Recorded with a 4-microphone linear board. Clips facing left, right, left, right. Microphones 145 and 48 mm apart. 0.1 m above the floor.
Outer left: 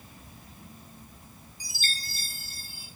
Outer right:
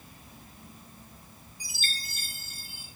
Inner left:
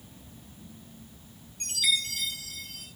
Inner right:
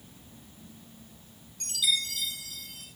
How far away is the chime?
About 5.5 m.